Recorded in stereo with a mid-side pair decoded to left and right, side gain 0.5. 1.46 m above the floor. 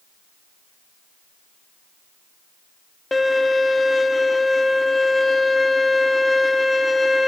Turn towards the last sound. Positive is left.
turn(degrees=15)